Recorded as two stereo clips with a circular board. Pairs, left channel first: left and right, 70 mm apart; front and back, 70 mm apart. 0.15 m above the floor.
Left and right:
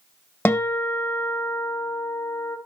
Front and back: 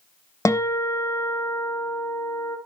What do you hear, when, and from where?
0.5 s a guitar: 30° left, 1.2 m